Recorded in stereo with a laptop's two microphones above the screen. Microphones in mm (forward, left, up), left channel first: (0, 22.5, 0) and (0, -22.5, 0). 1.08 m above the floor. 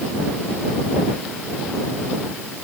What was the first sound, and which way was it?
Only background noise.